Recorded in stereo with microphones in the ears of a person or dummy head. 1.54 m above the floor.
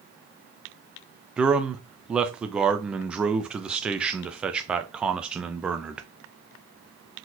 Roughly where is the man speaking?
Centre.